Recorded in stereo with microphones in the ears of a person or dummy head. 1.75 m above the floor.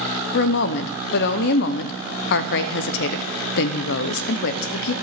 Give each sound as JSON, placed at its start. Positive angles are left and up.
{"t": 0.3, "sound": "a woman speaking", "side_deg": 60, "distance_m": 0.7}